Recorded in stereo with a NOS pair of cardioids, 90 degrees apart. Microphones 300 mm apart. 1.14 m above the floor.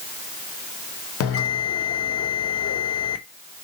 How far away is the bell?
About 0.9 m.